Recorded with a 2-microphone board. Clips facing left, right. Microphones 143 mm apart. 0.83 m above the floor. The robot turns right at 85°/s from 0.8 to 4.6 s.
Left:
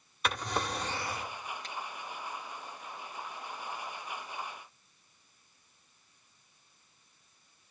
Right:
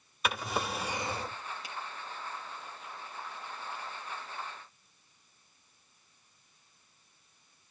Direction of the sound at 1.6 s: 10° right (ahead or behind).